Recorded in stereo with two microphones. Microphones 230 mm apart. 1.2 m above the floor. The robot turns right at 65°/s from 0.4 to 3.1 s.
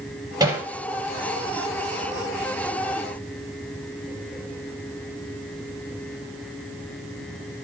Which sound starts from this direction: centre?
Hammering, at 0.4 s.